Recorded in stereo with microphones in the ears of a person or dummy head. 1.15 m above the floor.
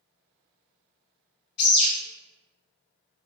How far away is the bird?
About 1.5 m.